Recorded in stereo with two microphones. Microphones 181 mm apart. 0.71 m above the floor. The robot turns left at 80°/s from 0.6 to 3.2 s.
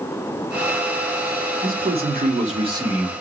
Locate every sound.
1.6 s a man speaking: 60° right, 1.8 m; by 3.1 s straight behind, 1.8 m